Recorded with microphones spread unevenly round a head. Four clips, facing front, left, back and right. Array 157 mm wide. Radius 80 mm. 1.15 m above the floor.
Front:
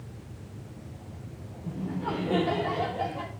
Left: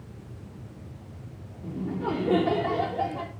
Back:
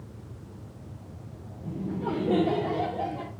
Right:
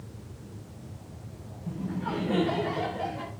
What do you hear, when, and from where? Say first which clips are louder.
1.6 s laughter: left 3 dB, back 1 dB; 120° left, 3 m